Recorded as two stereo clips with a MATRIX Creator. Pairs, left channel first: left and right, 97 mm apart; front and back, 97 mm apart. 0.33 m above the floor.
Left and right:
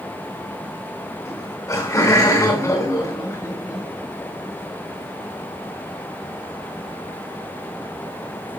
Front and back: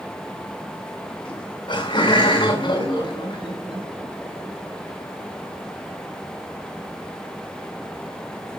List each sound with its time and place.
1.2 s laughter: 30° left, 6 m